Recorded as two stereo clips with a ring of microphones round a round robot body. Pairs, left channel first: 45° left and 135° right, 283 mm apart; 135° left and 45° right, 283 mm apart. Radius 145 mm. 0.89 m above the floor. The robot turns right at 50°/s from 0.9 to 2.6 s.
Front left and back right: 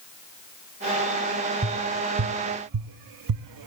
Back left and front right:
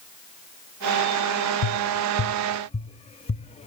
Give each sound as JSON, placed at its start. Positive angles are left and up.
{"t": 1.6, "sound": "tapping", "azimuth_deg": 155, "distance_m": 0.6}